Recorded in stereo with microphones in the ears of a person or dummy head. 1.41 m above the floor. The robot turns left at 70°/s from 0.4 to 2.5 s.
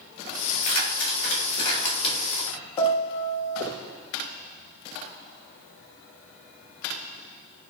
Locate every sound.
0.5 s keys jangling: 30° left (ahead or behind), 1.7 m; by 2.5 s 5° left (ahead or behind), 1.7 m
2.8 s a piano: 25° left (ahead or behind), 0.6 m